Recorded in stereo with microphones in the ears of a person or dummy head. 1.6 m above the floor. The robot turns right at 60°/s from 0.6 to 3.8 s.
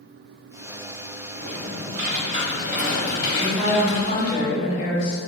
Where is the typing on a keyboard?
95° right, 1.1 m; by 4.4 s 50° left, 1.1 m.